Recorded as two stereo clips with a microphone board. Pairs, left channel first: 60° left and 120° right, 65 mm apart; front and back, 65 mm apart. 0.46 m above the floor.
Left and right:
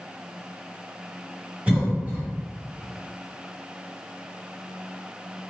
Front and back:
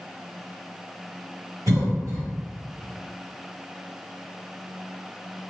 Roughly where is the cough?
Behind.